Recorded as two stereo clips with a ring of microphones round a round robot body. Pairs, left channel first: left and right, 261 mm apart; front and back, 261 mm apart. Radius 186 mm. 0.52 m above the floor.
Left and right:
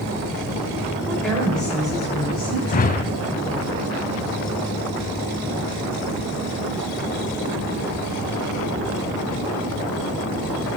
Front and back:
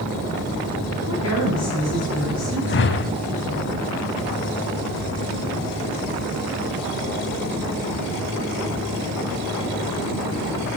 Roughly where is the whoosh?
Ahead left.